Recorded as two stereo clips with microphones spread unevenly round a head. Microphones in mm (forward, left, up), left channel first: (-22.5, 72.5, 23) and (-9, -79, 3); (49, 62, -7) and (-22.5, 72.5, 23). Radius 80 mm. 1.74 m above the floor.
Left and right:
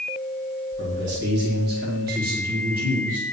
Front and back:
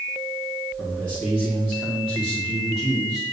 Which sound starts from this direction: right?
A man speaking, at 0.8 s.